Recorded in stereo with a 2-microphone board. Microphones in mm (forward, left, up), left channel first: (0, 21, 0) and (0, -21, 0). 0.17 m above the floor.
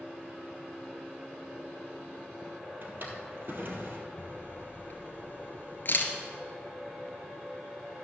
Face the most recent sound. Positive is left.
turn(degrees=50)  # may be behind; listen again after turning